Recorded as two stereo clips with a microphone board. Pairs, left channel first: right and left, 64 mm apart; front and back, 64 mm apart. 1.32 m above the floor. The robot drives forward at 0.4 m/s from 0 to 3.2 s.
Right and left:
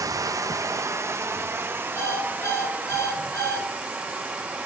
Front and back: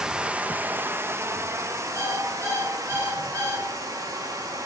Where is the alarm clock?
130° right, 7 m.